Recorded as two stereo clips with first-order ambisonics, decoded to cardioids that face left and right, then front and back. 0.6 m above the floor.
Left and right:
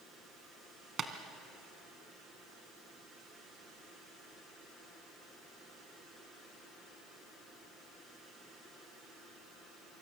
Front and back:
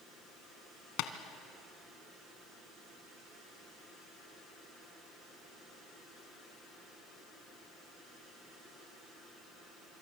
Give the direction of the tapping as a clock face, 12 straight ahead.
1 o'clock.